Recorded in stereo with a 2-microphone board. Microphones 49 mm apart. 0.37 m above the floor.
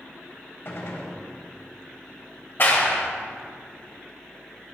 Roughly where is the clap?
Left.